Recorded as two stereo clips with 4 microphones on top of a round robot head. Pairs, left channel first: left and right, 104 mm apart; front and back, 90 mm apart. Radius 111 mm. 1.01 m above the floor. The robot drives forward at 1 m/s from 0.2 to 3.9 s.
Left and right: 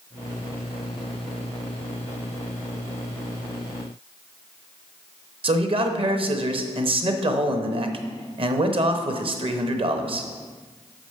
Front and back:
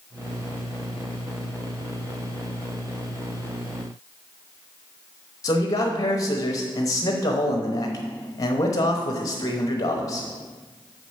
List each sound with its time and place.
5.4 s a man speaking: 55° right, 1.0 m